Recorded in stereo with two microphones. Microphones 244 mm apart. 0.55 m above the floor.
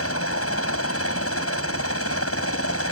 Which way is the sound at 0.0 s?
65° left (ahead or behind).